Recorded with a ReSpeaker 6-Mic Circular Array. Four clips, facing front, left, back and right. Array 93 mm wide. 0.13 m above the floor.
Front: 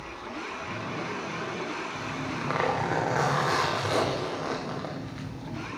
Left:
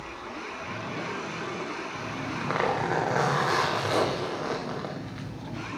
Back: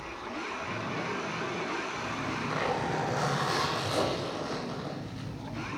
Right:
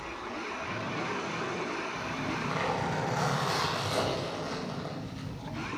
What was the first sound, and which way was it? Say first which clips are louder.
A zipper: left 1 dB, front 1 dB; 50° left.